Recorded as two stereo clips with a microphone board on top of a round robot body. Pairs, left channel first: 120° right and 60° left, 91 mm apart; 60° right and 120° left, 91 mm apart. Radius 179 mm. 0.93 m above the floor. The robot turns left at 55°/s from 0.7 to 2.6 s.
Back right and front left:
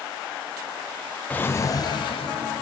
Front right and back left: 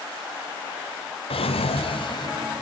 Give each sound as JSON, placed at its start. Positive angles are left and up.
{"t": 1.3, "sound": "a drawer", "azimuth_deg": -45, "distance_m": 0.7}